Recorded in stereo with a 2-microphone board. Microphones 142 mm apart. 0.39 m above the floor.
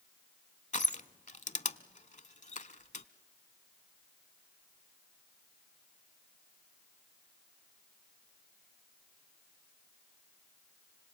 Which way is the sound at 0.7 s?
60° left (ahead or behind).